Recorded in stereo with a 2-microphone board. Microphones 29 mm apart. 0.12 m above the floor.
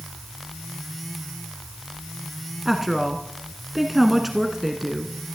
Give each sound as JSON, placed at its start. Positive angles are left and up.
{"t": 2.6, "sound": "a woman speaking", "side_deg": -5, "distance_m": 1.2}